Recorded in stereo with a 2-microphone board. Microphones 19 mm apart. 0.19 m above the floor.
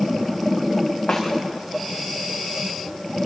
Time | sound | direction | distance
1.1 | a snare drum | 70° left (ahead or behind) | 6.5 m